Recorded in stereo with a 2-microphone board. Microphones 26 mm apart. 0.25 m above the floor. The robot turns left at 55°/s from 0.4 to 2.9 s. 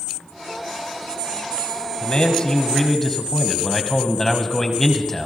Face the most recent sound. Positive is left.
turn(degrees=20)